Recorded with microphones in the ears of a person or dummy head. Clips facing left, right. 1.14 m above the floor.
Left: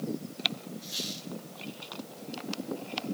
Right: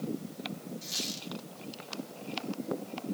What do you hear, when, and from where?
0.8 s a squeak: 75° right (ahead or behind), 1.7 m